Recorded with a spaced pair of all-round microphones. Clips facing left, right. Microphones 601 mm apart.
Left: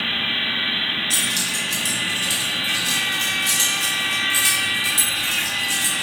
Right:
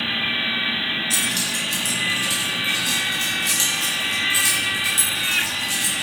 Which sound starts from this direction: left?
Keys jangling, at 1.1 s.